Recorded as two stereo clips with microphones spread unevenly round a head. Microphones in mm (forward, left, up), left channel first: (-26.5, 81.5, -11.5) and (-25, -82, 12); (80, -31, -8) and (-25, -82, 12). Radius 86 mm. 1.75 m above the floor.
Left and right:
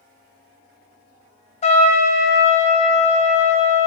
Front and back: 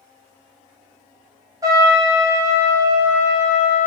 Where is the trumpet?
145° left, 0.9 m.